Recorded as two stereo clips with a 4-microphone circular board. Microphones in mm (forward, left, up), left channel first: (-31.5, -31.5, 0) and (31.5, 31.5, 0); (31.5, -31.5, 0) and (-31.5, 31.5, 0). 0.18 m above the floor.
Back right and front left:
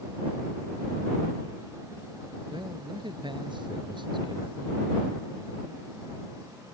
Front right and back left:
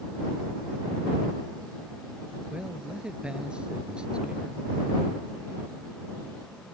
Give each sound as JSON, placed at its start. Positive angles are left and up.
{"t": 2.5, "sound": "a man speaking", "azimuth_deg": 55}